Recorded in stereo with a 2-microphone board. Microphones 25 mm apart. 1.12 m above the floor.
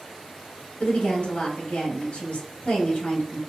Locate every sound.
0.8 s a woman speaking: 75° left (ahead or behind), 1.2 m